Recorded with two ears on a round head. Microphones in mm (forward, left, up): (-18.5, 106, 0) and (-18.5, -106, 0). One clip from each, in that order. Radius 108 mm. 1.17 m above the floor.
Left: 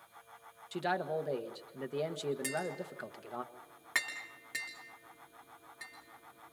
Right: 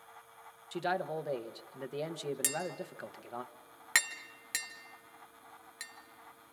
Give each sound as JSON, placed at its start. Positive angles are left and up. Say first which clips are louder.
{"t": 0.7, "sound": "a man speaking", "louder": "even", "side_deg": -5, "distance_m": 1.3}
{"t": 2.4, "sound": "tapping", "louder": "even", "side_deg": -70, "distance_m": 3.0}